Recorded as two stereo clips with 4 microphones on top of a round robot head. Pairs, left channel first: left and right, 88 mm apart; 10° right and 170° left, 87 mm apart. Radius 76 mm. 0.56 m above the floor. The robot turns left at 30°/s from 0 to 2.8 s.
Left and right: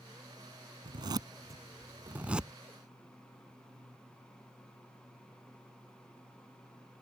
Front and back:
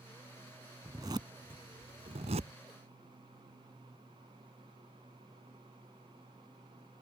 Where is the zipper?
125° right; by 2.5 s 175° right.